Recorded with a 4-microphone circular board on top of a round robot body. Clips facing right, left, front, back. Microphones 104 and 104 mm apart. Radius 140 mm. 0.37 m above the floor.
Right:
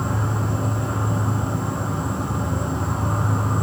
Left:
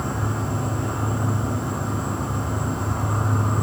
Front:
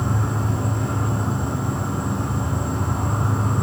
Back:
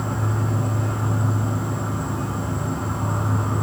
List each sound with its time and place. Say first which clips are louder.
0.0 s an insect: right 1 dB, front 1 dB; 30° right, 3 m